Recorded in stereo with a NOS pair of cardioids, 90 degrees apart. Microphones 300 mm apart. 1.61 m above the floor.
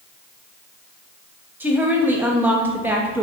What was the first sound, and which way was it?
A woman speaking, 5° right.